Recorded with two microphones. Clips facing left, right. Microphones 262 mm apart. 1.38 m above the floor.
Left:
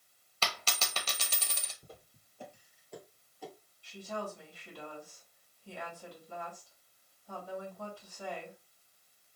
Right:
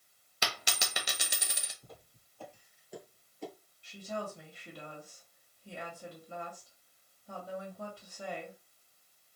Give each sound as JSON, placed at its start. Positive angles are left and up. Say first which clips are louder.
{"t": 0.4, "sound": "a dropped coin", "louder": "even", "side_deg": -15, "distance_m": 0.7}
{"t": 1.8, "sound": "footsteps", "louder": "even", "side_deg": 30, "distance_m": 2.5}
{"t": 3.8, "sound": "a woman speaking", "louder": "even", "side_deg": -25, "distance_m": 2.0}